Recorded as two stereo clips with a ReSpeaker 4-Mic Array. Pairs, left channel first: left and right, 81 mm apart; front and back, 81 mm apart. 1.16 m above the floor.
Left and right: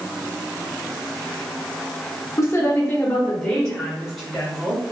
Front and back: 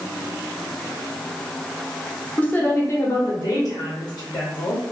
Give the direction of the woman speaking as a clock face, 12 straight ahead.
10 o'clock.